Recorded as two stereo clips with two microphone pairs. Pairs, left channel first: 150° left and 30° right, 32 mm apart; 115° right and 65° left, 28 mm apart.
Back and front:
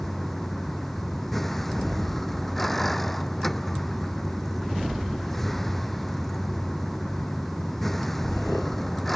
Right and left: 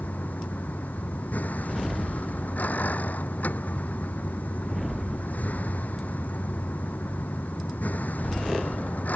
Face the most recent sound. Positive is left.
turn(degrees=-130)